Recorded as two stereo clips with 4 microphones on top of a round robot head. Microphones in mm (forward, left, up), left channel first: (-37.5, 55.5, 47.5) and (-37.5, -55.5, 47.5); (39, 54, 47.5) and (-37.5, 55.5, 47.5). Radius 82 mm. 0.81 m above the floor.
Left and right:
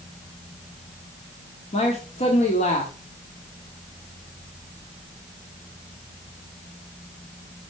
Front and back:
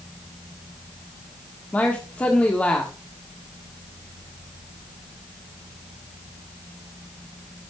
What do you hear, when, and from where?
1.7 s a man speaking: 70° left, 1.7 m